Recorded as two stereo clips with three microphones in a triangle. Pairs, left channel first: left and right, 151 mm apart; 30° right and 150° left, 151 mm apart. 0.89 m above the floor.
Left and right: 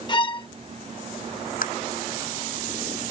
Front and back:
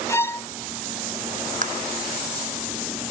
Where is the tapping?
120° left.